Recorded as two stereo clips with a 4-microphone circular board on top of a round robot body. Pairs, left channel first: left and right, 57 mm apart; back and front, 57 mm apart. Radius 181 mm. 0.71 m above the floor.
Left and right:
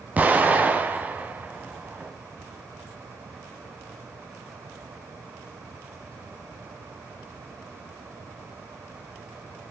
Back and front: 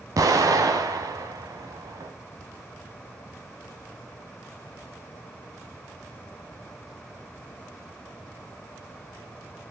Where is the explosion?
30° right, 1.3 m.